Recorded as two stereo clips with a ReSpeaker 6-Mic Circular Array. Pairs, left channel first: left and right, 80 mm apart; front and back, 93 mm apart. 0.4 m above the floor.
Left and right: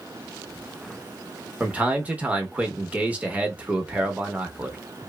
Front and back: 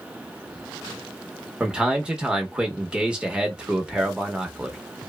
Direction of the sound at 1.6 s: 120° right.